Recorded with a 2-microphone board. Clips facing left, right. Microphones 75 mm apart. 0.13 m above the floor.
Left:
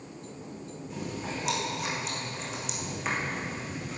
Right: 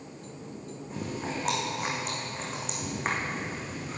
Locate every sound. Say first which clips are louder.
0.9 s chewing: right 2 dB; 40° right (ahead or behind), 2.5 m